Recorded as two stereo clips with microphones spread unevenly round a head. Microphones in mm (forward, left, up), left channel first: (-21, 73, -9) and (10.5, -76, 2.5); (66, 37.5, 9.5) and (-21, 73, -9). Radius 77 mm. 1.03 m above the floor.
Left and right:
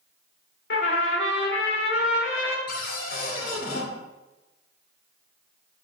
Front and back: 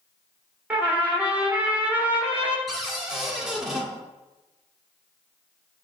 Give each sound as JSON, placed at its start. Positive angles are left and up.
{"t": 0.7, "sound": "a trumpet", "azimuth_deg": 80, "distance_m": 1.1}
{"t": 2.7, "sound": "a cupboard door", "azimuth_deg": 75, "distance_m": 1.2}